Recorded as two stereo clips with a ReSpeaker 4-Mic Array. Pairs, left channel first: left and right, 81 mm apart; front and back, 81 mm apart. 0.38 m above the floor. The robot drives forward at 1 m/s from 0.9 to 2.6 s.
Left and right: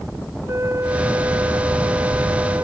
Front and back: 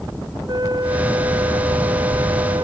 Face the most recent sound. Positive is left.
turn(degrees=-145)